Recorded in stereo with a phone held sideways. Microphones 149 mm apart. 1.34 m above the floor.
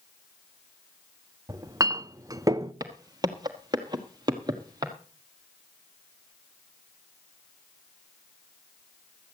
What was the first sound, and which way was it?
A clink, 25° right (ahead or behind).